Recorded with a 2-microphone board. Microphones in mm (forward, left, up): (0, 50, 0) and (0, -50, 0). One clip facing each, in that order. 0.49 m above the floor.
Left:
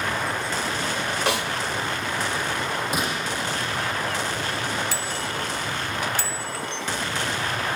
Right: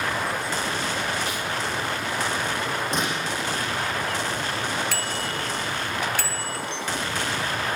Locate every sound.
1.3 s a snare drum: 70° left (ahead or behind), 0.9 m
2.9 s a gunshot: 5° left (ahead or behind), 7 m
4.9 s a bicycle bell: 60° right (ahead or behind), 2.5 m